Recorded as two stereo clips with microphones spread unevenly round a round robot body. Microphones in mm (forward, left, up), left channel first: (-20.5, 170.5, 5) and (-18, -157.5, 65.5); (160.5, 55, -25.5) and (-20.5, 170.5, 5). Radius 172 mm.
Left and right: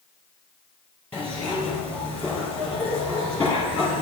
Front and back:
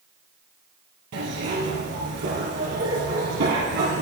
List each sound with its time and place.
1.1 s a zipper: 175° left, 2.5 m